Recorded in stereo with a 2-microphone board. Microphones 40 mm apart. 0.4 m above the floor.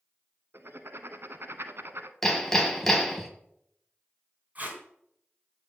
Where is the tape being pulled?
35° right (ahead or behind), 3 m.